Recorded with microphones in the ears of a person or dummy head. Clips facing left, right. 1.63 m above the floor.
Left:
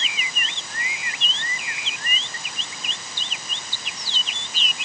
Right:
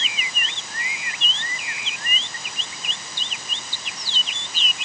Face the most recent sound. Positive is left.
No sound to turn to.